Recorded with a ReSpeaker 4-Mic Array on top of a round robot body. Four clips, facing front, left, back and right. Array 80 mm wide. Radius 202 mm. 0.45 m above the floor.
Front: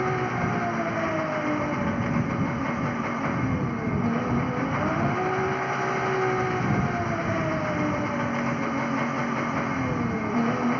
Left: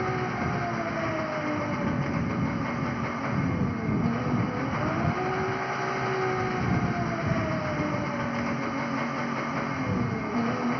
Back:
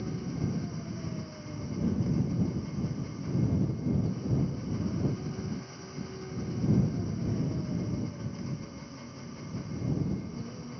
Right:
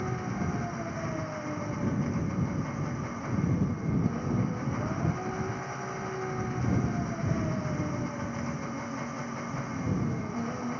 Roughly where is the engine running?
Ahead left.